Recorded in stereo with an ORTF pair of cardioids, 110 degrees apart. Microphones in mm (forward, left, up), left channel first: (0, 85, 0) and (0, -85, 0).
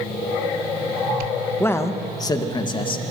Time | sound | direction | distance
1.6 | a man speaking | 15° left | 1.5 m